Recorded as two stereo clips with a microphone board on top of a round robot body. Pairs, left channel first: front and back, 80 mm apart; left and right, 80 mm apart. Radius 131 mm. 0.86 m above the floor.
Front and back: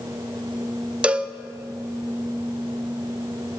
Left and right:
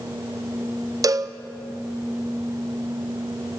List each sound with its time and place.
1.0 s a cowbell: 110° right, 0.5 m